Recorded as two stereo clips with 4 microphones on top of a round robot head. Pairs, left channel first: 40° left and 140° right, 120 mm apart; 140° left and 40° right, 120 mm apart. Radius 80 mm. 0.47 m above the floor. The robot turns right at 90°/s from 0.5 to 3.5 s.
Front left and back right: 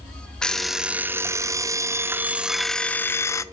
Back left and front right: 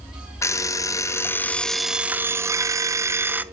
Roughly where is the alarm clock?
Behind left.